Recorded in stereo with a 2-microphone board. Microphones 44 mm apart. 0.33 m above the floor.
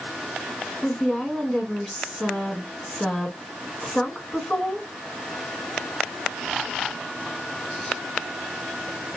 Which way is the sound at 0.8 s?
15° left (ahead or behind).